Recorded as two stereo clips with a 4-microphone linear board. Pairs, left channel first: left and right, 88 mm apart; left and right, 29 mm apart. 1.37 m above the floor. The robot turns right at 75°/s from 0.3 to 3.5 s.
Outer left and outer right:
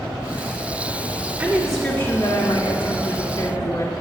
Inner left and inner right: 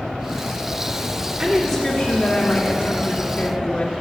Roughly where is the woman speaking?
Ahead right.